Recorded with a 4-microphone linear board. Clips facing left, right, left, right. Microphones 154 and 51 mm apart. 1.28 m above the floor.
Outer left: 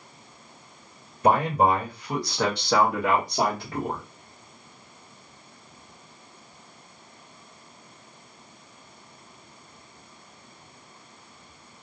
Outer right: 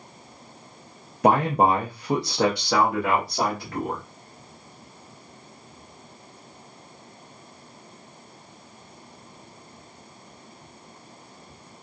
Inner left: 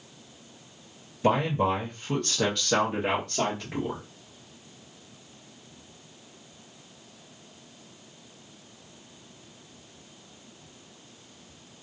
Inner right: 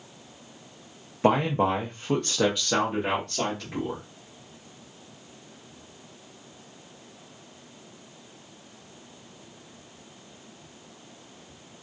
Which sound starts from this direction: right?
A man speaking, at 1.2 s.